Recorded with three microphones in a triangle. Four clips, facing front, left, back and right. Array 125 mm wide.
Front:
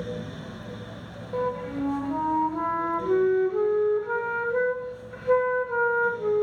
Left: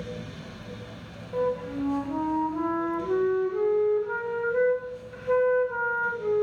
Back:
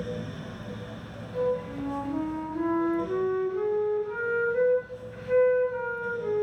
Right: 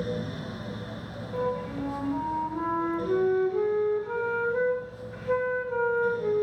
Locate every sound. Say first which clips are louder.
1.3 s a flute: left 3 dB, even; 20° left, 1.1 m